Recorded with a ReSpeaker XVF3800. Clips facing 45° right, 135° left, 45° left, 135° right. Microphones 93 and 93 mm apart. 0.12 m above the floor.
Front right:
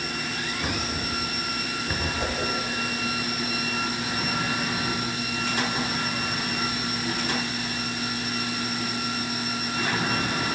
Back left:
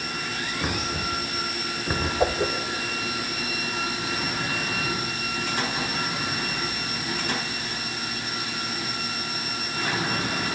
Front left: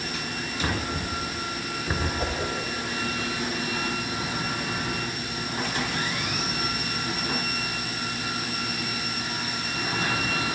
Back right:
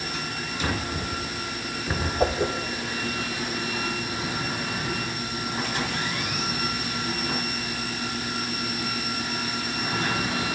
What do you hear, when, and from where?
0.6 s knocking: 125° left, 1.5 m
2.2 s a whoosh: 175° left, 1.5 m